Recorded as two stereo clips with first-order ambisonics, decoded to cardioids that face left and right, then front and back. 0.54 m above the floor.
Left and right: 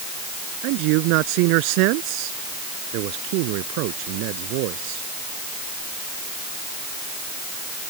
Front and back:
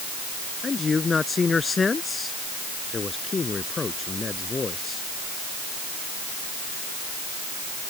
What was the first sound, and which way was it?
A man speaking, 75° right.